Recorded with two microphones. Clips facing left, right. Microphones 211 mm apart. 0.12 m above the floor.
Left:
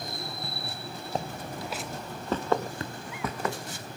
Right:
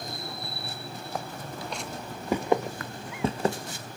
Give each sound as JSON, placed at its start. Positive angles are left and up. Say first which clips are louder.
{"t": 1.1, "sound": "footsteps", "louder": "left 3 dB", "side_deg": 25, "distance_m": 0.9}
{"t": 2.8, "sound": "tapping", "louder": "left 3 dB", "side_deg": 25, "distance_m": 1.0}